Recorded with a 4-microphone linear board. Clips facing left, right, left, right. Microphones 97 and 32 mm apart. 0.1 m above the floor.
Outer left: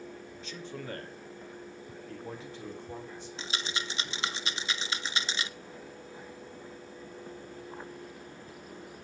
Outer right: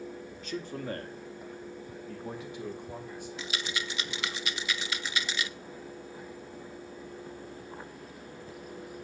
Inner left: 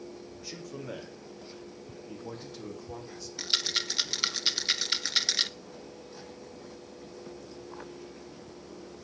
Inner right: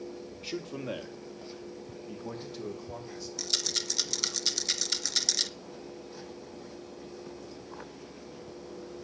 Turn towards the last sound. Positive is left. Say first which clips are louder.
# outer left 1 dB, inner left 4 dB
turn(degrees=30)  # may be behind; listen again after turning